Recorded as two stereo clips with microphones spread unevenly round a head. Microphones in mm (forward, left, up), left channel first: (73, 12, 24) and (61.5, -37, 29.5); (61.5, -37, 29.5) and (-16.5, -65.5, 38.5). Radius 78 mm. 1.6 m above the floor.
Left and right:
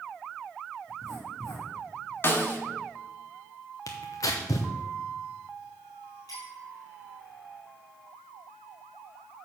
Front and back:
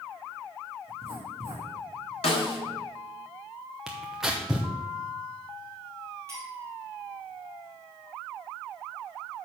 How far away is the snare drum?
About 1.5 m.